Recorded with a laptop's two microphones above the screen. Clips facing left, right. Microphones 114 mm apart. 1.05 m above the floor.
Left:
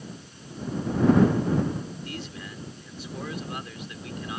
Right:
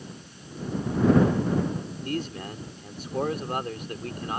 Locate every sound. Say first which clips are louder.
2.0 s a man speaking: right 7 dB; 50° right (ahead or behind)